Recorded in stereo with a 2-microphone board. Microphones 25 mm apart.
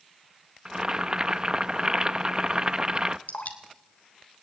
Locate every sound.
0.7 s boiling: 30° right (ahead or behind), 0.7 m
3.3 s dripping: 75° left (ahead or behind), 3 m